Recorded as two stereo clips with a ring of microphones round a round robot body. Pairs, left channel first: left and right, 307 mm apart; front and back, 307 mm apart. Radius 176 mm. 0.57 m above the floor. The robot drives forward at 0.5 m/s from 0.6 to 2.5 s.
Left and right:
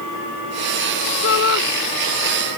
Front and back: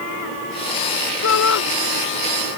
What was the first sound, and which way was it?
A shout, 40° left.